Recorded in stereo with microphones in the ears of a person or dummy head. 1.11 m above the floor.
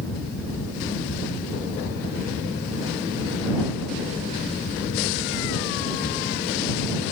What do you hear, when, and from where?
0.0 s a fan: 85° left